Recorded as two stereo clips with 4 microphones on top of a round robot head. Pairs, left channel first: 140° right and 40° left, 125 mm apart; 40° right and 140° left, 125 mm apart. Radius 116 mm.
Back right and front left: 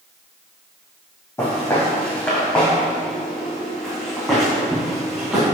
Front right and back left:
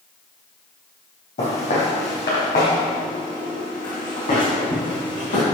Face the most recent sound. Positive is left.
turn(degrees=-50)